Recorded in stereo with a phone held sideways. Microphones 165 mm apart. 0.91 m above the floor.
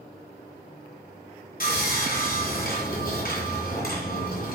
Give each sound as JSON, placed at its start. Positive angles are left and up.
{"t": 1.6, "sound": "sawing", "side_deg": 55, "distance_m": 2.5}